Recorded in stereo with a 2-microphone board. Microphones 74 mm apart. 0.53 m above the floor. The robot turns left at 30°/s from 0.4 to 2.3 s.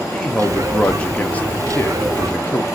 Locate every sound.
0.1 s a man speaking: 10° left (ahead or behind), 0.7 m; by 2.6 s 25° left (ahead or behind), 0.7 m